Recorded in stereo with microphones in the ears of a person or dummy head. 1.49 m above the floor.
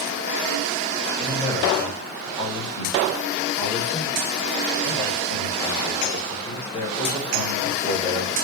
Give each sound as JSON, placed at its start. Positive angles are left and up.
{"t": 1.2, "sound": "a man speaking", "side_deg": 25, "distance_m": 1.5}